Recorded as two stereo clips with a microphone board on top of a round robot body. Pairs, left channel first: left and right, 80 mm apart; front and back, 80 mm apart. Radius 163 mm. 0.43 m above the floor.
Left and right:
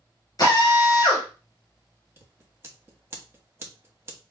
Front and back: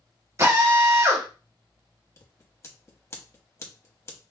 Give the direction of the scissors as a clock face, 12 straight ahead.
1 o'clock.